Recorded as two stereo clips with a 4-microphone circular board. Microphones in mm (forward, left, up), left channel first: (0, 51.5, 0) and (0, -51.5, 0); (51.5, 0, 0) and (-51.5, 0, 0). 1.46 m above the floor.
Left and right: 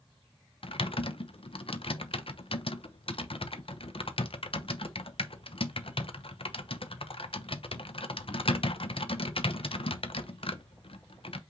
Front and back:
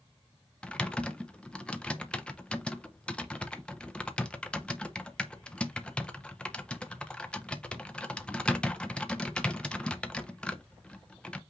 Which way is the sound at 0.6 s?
80° left.